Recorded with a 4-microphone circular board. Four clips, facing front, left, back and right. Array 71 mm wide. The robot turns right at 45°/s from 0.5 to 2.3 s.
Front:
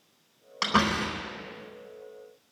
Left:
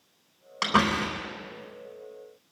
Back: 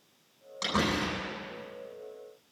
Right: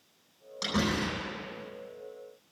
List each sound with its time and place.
0.6 s a door slam: 60° left, 4 m; by 1.3 s 90° left, 4 m